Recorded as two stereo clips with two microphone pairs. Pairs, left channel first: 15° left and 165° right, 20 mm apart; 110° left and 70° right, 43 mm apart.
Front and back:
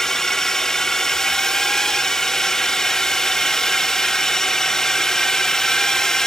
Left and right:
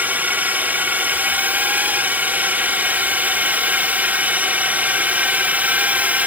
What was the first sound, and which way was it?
A drone, 45° right.